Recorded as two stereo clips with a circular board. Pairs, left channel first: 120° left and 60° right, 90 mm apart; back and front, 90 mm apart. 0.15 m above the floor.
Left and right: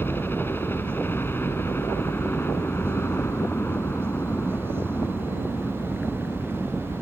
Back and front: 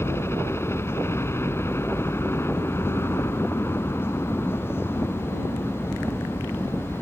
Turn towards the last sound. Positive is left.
turn(degrees=160)